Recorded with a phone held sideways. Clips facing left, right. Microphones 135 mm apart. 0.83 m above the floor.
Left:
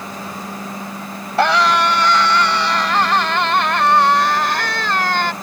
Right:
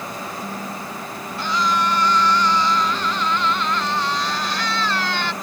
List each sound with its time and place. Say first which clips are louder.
1.4 s a scream: left 7 dB; 80° left; by 5.3 s 50° left (ahead or behind)